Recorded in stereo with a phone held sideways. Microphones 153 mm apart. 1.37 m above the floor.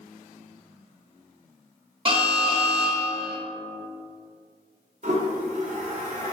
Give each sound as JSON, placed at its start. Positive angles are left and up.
{"t": 2.0, "sound": "an alarm", "side_deg": -35, "distance_m": 0.9}
{"t": 5.0, "sound": "a toilet flushing", "side_deg": -55, "distance_m": 0.8}